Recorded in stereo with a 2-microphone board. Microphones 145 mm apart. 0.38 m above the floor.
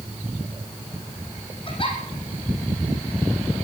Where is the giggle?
40° left (ahead or behind), 5 m.